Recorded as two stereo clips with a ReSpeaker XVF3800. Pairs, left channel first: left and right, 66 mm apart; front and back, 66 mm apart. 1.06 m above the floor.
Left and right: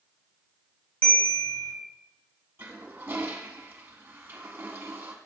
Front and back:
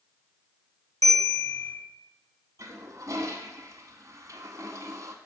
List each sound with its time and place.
1.0 s a bell: 25° left, 1.8 m
2.6 s a toilet flushing: 150° right, 0.8 m